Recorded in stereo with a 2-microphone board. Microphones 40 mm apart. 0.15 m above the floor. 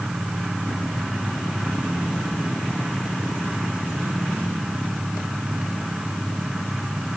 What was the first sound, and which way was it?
Only background noise.